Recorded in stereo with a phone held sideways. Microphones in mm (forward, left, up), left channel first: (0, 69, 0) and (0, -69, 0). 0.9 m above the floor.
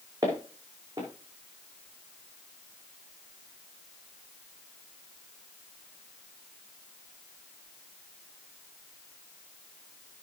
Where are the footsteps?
25° right (ahead or behind), 4.5 m.